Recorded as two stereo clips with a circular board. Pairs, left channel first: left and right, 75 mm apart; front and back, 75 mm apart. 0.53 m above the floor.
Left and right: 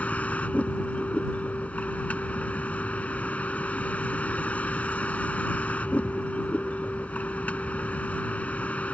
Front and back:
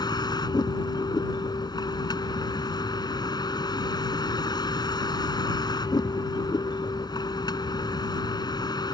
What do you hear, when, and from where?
0.0 s a vehicle: 20° left